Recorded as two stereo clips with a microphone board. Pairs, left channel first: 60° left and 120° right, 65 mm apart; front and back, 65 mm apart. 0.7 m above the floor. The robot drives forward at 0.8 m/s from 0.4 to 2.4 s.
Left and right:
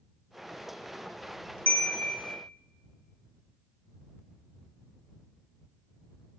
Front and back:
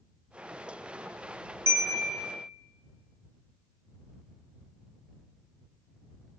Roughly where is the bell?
Behind left.